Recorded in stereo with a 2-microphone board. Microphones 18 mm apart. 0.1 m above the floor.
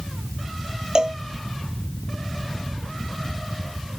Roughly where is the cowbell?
Right.